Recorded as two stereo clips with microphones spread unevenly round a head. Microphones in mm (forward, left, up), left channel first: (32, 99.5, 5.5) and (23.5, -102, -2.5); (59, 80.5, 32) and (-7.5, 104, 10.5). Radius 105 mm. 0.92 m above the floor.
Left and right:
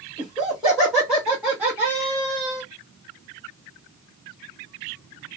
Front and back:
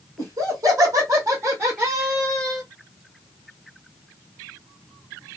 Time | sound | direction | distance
0.2 | laughter | 175° left | 1.8 m